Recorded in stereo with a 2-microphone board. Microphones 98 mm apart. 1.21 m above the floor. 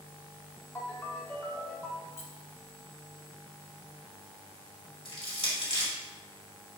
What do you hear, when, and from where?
0.8 s a ringtone: 25° left (ahead or behind), 1.4 m
2.1 s keys jangling: 80° left, 1.4 m
5.0 s crushing: 65° left (ahead or behind), 2.5 m